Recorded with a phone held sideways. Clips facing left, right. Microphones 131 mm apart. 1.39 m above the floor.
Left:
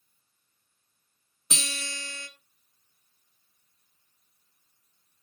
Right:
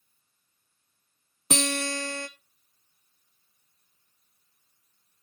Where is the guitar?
50° right (ahead or behind), 1.0 m.